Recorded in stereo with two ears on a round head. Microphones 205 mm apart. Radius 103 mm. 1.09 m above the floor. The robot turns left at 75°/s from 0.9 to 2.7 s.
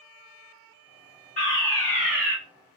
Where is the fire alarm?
50° left, 1.5 m; by 2.4 s 25° right, 1.5 m.